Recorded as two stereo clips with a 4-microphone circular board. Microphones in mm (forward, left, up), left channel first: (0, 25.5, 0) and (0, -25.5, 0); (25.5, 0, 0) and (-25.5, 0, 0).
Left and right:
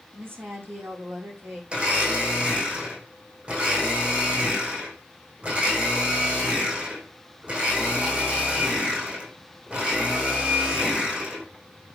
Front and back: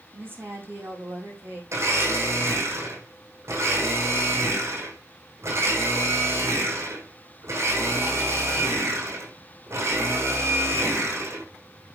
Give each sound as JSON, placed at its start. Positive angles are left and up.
{"t": 0.1, "sound": "a woman speaking", "azimuth_deg": -135, "distance_m": 5.5}
{"t": 1.7, "sound": "a blender", "azimuth_deg": -155, "distance_m": 4.5}